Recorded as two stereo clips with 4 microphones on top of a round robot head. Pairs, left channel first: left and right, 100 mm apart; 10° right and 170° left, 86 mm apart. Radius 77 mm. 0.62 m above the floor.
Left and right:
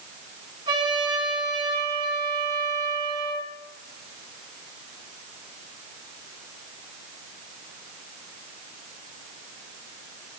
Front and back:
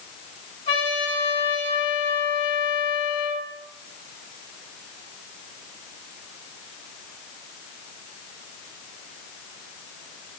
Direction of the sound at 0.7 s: 40° right.